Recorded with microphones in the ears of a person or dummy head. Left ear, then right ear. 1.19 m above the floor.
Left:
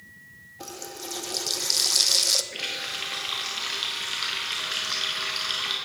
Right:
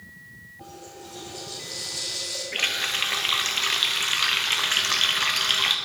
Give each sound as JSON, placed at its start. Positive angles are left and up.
{"t": 0.6, "sound": "a running tap", "side_deg": 75, "distance_m": 0.5}
{"t": 2.5, "sound": "a running tap", "side_deg": -30, "distance_m": 0.7}